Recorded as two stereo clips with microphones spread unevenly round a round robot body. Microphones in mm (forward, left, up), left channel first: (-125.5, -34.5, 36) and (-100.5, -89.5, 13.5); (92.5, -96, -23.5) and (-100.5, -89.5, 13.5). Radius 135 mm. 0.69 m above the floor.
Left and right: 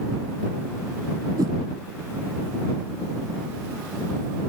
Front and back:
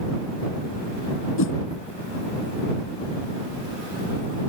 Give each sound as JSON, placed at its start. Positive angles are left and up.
{"t": 1.4, "sound": "a whoosh", "azimuth_deg": -15}